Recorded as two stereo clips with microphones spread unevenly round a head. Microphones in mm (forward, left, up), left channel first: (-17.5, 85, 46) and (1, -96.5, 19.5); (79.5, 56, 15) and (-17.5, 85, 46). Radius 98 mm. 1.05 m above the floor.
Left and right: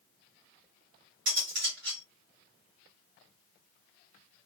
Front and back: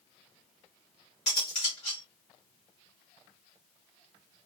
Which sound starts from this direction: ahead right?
Cutlery clinking, at 1.3 s.